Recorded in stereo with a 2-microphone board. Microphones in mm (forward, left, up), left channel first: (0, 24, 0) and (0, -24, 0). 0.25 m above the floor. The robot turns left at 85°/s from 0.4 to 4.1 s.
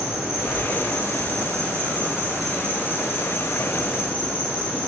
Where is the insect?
10° right, 1.9 m; by 4.9 s 40° left, 1.9 m.